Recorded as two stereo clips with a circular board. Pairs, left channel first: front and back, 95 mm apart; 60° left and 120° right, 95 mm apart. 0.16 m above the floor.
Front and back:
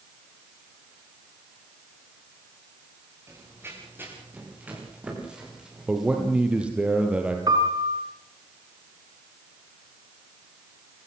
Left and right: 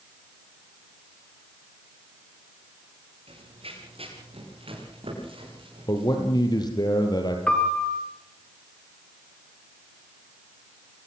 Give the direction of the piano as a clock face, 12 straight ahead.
7 o'clock.